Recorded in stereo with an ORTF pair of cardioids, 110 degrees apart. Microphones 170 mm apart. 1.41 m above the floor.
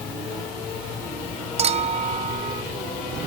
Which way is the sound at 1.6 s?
40° right.